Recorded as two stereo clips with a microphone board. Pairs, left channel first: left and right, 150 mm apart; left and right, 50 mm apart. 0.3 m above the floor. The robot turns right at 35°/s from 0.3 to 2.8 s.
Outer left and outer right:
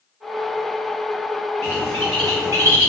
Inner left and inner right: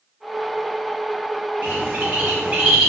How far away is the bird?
About 1.0 m.